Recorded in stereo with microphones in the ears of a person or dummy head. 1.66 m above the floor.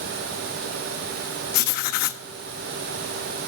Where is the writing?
60° left (ahead or behind), 0.6 m.